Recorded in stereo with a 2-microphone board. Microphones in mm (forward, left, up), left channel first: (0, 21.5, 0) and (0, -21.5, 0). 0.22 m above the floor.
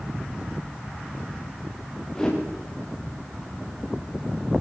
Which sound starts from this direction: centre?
A whoosh, at 2.1 s.